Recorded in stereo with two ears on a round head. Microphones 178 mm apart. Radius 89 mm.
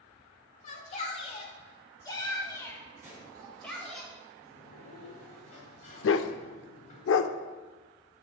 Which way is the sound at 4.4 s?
40° left (ahead or behind).